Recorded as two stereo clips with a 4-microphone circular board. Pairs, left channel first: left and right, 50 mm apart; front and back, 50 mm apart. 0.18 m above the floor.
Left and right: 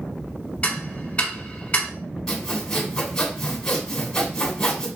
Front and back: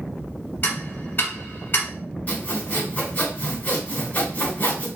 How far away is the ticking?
About 1.0 m.